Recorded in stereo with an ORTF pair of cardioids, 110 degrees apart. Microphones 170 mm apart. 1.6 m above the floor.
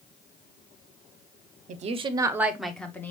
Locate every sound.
1.7 s a woman speaking: 50° right, 0.8 m; by 3.1 s 15° left, 1.3 m